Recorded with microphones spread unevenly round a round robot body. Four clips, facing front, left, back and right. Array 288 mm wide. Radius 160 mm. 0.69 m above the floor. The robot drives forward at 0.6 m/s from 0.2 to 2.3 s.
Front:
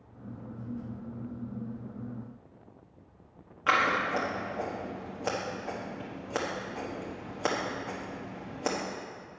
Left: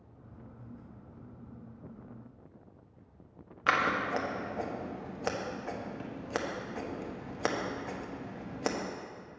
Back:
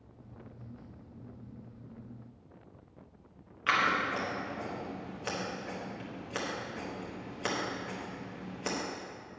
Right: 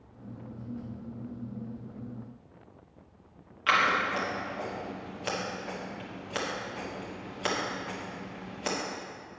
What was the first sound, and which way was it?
Scissors, 40° left.